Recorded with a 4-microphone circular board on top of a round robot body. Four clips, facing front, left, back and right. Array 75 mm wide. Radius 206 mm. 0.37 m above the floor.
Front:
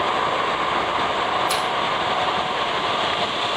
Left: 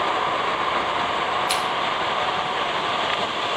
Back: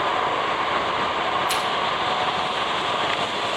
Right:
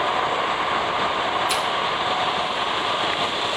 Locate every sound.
1.5 s scissors: 100° left, 3 m